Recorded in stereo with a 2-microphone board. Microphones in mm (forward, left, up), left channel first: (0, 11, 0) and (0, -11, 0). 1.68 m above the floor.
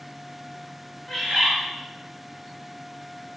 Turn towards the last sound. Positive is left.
turn(degrees=35)  # may be behind; listen again after turning